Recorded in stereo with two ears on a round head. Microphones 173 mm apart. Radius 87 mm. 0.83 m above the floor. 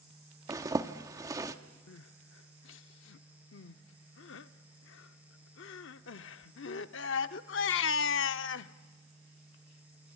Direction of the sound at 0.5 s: 20° right (ahead or behind).